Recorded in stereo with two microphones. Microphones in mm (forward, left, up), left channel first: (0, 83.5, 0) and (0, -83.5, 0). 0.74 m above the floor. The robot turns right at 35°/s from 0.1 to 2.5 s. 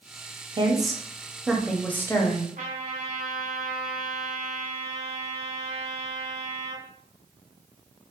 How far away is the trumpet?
About 1.0 m.